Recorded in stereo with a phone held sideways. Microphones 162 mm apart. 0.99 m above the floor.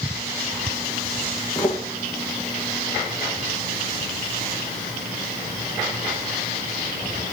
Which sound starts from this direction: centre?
Footsteps, at 1.6 s.